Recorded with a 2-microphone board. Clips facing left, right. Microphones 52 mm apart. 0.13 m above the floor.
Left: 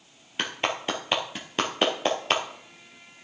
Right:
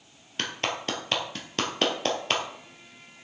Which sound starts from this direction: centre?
A clap, at 0.4 s.